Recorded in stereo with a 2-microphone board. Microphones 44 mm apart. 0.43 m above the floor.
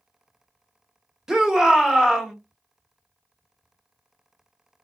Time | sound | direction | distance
1.3 | a shout | 15° right (ahead or behind) | 1.1 m